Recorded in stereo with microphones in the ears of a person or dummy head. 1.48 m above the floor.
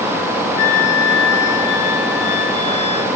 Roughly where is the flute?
Centre.